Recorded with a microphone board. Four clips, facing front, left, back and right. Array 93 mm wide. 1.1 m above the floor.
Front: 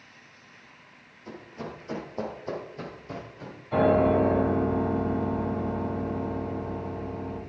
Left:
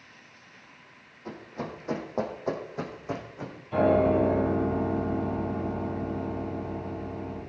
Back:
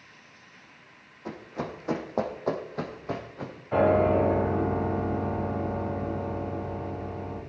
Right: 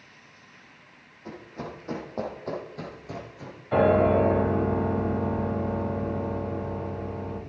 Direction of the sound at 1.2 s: 175° right.